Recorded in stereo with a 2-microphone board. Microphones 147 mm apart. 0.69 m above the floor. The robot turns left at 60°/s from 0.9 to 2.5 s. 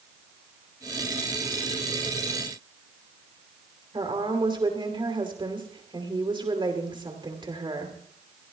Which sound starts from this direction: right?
A woman speaking, at 3.9 s.